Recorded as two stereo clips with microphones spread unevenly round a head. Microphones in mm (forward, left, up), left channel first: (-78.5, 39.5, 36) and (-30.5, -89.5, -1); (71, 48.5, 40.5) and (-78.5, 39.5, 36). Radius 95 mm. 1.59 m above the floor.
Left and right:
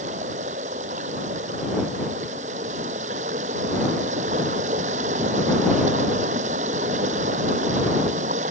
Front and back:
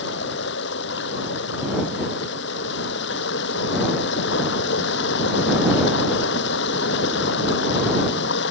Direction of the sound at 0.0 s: 15° right.